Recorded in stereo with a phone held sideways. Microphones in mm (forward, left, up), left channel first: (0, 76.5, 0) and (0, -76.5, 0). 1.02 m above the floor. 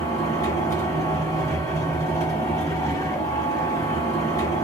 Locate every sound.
0.0 s a machine running: 25° left (ahead or behind), 1.2 m